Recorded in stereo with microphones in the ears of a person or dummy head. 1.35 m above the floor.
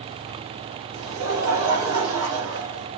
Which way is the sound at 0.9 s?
80° right.